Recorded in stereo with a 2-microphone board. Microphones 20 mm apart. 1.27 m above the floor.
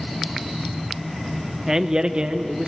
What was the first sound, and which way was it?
A man speaking, 25° right (ahead or behind).